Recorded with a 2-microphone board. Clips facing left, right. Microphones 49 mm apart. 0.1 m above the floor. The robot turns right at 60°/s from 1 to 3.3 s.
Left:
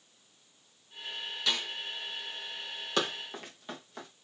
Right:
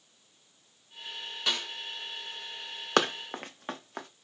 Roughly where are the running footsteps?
Right.